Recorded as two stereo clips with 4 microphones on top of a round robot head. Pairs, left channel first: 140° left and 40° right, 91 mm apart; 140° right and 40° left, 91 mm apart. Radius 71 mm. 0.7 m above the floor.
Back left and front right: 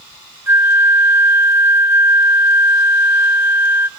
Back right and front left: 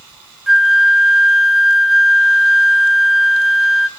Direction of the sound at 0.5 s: 45° right.